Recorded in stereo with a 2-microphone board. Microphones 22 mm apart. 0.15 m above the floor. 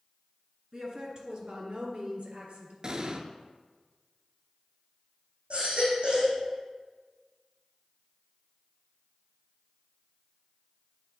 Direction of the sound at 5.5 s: 60° right (ahead or behind).